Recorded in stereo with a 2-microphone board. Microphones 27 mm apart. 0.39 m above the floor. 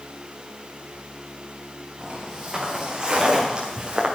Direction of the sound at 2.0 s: 20° right (ahead or behind).